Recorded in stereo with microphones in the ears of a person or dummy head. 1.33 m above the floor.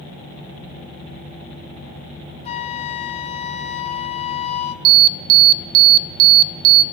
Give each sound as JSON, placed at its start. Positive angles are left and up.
{"t": 2.5, "sound": "a flute", "side_deg": 35, "distance_m": 1.6}
{"t": 4.8, "sound": "an alarm", "side_deg": -75, "distance_m": 0.7}